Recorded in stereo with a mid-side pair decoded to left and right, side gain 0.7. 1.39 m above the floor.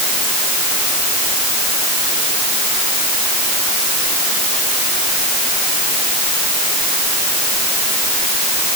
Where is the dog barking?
No dog barking in this recording.